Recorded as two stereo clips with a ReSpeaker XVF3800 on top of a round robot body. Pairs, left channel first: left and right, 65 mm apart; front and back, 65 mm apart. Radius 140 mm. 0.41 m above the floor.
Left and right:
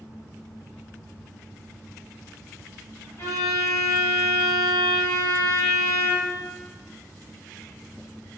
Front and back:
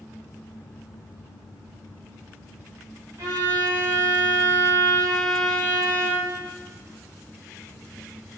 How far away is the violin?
About 1.5 m.